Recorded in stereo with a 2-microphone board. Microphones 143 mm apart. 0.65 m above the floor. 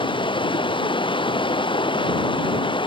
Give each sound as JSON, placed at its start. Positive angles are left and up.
{"t": 0.0, "sound": "running water", "side_deg": 35}